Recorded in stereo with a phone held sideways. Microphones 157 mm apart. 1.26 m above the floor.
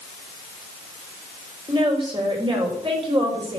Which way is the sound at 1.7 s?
35° right (ahead or behind).